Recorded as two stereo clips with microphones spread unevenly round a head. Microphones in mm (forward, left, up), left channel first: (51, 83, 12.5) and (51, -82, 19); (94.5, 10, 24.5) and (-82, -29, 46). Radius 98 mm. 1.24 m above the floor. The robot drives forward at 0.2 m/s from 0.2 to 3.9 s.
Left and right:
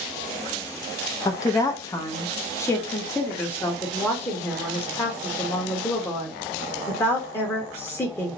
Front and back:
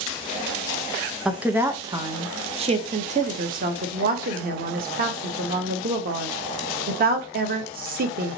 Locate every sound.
1.2 s a woman speaking: 95° left, 0.5 m; by 8.4 s 160° left, 0.7 m